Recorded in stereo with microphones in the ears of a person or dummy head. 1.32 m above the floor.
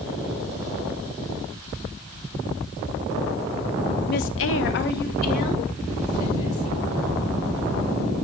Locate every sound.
4.1 s a woman speaking: 40° left (ahead or behind), 0.6 m